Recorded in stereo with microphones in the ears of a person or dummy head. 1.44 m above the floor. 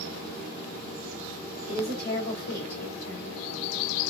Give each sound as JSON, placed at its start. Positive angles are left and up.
{"t": 1.7, "sound": "a woman speaking", "side_deg": 40, "distance_m": 2.0}